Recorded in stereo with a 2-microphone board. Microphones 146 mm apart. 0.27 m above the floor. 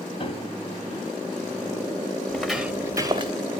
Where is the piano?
40° left (ahead or behind), 0.6 m.